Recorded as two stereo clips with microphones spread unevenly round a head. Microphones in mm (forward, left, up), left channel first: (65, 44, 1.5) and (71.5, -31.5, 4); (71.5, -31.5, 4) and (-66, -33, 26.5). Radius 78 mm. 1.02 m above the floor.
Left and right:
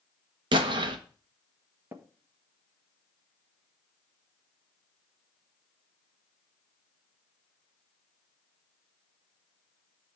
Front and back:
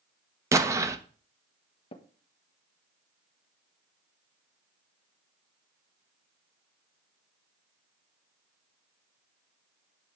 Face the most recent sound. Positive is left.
turn(degrees=-30)